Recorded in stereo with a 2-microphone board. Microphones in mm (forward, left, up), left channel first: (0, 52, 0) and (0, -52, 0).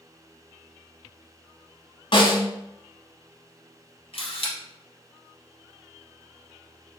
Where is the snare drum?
60° left (ahead or behind), 1.3 m.